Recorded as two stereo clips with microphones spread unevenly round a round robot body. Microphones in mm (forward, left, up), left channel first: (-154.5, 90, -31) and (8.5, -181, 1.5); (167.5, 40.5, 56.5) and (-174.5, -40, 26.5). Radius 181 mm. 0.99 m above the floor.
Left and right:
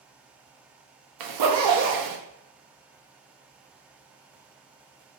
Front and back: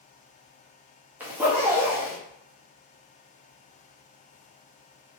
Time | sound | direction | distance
1.2 | a zipper | 80° right | 0.7 m